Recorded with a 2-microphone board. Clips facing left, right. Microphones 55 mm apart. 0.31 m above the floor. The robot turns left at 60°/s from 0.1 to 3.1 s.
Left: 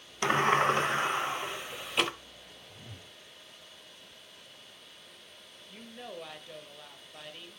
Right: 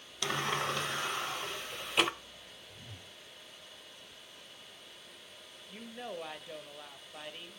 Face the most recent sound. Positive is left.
turn(degrees=-10)  # may be behind; listen again after turning